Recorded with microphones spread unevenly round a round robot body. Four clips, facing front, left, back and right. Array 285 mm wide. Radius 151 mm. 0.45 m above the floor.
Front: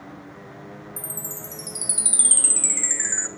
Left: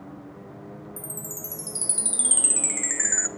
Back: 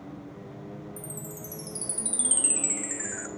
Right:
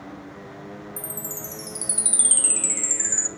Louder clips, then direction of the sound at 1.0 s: Right 3 dB, front 2 dB; 20° left.